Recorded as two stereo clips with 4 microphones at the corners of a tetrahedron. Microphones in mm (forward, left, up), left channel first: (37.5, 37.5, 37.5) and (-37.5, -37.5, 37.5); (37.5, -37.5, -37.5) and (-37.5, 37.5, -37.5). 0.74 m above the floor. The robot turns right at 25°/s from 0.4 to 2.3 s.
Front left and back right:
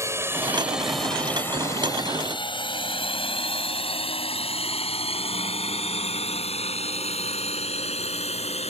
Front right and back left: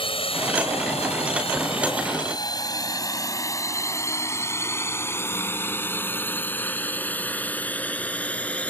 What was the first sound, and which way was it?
A drone, 75° right.